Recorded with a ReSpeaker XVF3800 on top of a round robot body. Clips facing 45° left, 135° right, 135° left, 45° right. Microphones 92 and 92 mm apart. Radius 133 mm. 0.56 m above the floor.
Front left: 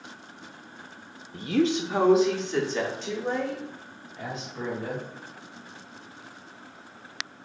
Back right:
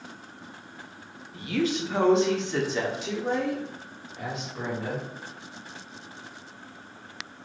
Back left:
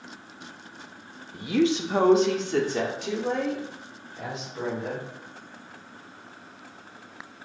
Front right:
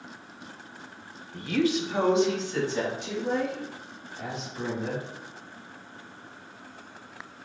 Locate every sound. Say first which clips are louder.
1.3 s a woman speaking: front left 3 dB, back left 2 dB; 50° left, 0.7 m; by 5.0 s 155° left, 3 m